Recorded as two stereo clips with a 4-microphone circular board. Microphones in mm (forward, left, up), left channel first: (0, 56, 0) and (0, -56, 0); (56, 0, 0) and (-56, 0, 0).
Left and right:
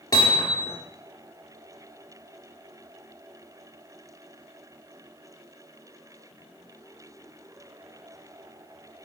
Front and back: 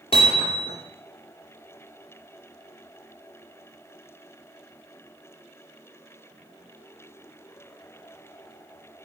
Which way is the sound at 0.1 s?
35° left.